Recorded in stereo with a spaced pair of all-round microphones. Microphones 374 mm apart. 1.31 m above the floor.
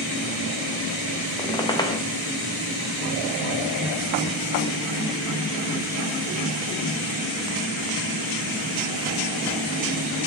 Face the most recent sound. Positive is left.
turn(degrees=10)  # may be behind; listen again after turning